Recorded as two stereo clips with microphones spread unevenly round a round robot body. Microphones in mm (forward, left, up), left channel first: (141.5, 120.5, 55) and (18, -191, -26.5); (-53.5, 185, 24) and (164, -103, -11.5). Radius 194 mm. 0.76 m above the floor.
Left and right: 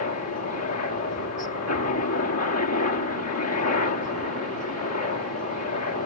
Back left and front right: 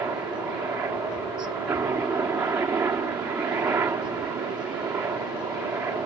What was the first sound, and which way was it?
A helicopter, 30° left.